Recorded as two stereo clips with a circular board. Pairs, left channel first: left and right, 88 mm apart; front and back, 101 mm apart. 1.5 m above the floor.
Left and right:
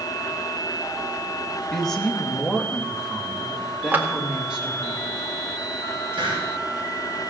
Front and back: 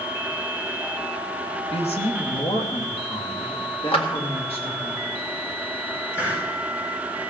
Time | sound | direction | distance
1.7 | a woman speaking | 5° left | 1.8 m
3.9 | a clap | 20° right | 1.8 m
6.1 | a hiss | 65° right | 6 m